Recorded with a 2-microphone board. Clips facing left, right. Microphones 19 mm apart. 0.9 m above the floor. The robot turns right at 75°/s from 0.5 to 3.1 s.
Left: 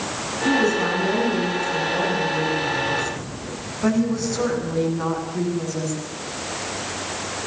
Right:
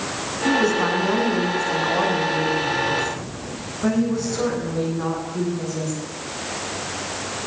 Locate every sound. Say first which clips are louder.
0.5 s a woman speaking: right 1 dB; straight behind, 9.5 m; by 5.9 s 15° left, 9.5 m